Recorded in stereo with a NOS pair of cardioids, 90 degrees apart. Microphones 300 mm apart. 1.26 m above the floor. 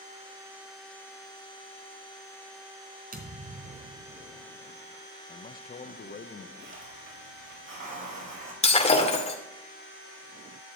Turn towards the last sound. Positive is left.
turn(degrees=20)